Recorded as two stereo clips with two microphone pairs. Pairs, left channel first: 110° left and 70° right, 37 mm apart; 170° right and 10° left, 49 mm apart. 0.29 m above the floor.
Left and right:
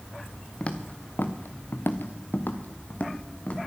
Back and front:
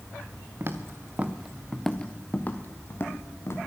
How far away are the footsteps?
About 1.9 m.